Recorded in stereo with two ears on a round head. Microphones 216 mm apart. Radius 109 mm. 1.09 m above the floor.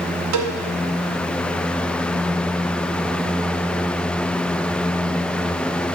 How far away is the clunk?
No clunk in this recording.